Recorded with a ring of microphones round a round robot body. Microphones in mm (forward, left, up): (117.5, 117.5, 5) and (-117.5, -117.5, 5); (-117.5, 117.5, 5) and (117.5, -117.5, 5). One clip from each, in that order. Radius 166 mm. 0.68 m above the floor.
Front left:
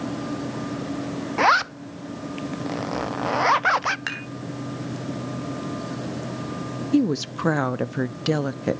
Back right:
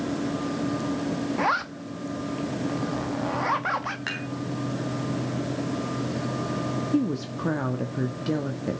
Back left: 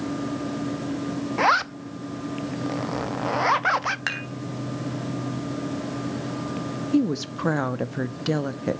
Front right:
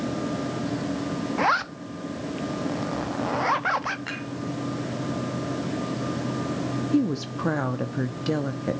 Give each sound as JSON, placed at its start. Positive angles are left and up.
{"t": 1.4, "sound": "a zipper", "azimuth_deg": 70, "distance_m": 0.5}
{"t": 4.1, "sound": "dishes clattering", "azimuth_deg": 110, "distance_m": 3.5}
{"t": 6.9, "sound": "a woman speaking", "azimuth_deg": 65, "distance_m": 0.7}